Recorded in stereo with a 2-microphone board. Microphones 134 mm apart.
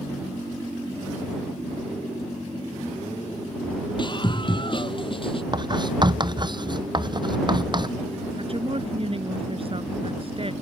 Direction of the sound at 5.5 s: 35° right (ahead or behind).